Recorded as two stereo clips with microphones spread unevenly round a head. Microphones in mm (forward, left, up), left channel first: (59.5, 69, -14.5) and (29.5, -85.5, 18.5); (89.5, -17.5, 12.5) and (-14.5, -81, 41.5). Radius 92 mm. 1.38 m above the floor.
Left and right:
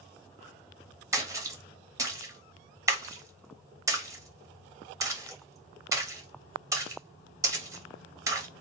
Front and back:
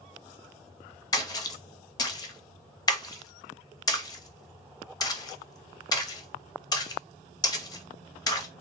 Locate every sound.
1.1 s a splash: 30° right, 0.7 m